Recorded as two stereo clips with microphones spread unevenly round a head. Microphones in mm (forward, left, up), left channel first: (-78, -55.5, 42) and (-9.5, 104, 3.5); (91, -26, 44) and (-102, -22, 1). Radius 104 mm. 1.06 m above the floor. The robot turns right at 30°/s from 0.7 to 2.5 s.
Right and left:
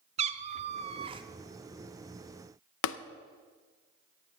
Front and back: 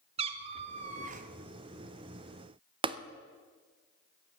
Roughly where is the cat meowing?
Behind left.